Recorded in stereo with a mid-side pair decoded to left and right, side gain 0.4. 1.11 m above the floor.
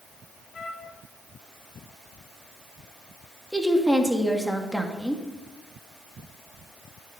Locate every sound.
0.5 s a trumpet: 55° left, 2 m
3.5 s a woman speaking: straight ahead, 2.5 m